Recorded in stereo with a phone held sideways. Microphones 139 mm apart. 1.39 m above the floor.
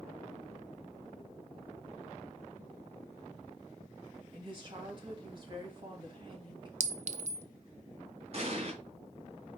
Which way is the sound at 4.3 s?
35° right (ahead or behind).